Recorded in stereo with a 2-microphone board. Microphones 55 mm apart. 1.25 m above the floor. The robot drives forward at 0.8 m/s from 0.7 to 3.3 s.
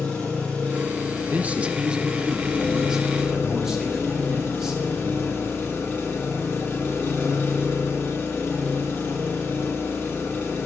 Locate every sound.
0.0 s an engine running: 25° left (ahead or behind), 4 m; by 10.7 s 45° left (ahead or behind), 2.5 m
1.3 s a man speaking: 30° right (ahead or behind), 0.7 m; by 5.6 s 10° right (ahead or behind), 2 m